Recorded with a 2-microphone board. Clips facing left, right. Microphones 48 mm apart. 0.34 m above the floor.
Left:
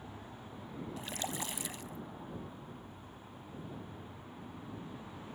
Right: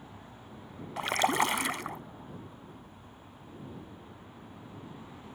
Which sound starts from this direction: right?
A splash, at 1.0 s.